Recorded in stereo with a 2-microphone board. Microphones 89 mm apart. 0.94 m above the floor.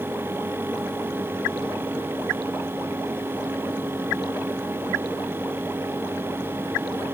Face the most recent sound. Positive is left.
No sound to turn to.